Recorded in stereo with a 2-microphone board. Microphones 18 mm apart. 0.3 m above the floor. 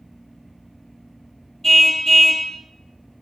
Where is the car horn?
20° left (ahead or behind), 3.5 m.